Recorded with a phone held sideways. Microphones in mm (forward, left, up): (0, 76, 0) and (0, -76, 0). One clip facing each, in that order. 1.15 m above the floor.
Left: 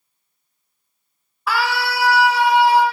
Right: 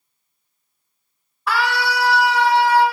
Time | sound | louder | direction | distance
1.5 | a scream | even | centre (ahead or behind) | 1.6 m